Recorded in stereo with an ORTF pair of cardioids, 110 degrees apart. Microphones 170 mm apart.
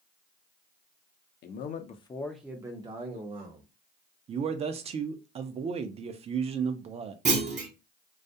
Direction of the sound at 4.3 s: 35° right.